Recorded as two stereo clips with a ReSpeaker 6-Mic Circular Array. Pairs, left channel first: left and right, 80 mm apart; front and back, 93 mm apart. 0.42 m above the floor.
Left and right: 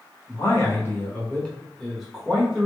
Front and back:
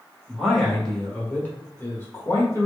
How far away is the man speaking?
About 1.2 m.